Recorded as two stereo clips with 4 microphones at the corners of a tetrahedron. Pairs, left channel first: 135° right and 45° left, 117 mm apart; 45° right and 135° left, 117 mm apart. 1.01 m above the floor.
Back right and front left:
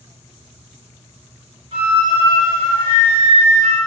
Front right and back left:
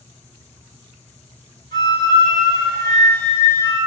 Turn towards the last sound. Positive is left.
turn(degrees=10)